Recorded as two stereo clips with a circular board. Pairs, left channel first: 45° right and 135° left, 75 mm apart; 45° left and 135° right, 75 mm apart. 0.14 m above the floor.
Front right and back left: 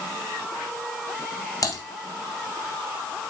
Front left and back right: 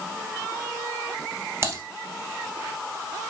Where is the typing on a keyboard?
80° right, 2 m.